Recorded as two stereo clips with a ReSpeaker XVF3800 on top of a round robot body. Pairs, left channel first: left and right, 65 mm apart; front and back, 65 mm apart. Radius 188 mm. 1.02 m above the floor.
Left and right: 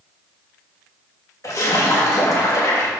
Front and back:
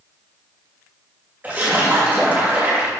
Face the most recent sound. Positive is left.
turn(degrees=120)